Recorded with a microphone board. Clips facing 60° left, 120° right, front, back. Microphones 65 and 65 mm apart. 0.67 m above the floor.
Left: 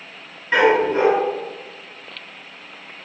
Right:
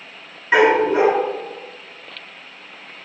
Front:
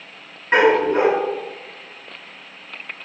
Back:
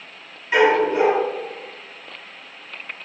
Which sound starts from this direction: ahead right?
A dog barking, at 0.5 s.